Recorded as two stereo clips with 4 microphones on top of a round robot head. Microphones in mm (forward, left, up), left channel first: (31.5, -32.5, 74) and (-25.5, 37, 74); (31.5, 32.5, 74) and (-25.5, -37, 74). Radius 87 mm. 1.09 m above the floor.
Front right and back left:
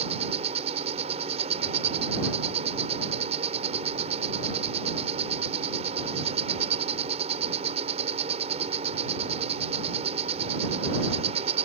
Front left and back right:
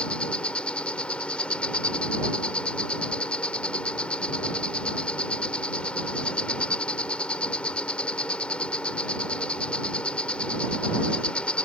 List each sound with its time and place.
0.0 s an insect: 130° left